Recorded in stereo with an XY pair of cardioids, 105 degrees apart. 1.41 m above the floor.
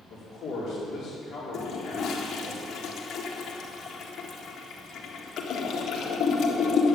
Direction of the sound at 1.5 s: 65° left.